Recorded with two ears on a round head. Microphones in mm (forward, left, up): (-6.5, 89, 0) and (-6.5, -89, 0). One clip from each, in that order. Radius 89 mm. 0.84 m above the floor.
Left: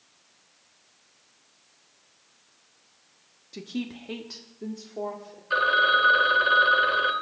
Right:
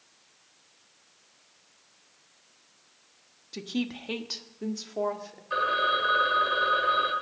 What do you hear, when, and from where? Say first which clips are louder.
3.5 s a woman speaking: right 2 dB; 15° right (ahead or behind), 1.2 m; by 5.4 s 60° right (ahead or behind), 1.8 m
5.5 s a phone ringing: left 5 dB; 45° left (ahead or behind), 1.9 m